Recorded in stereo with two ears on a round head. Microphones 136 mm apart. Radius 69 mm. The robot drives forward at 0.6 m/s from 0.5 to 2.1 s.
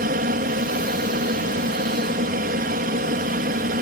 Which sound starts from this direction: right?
An aircraft, at 0.0 s.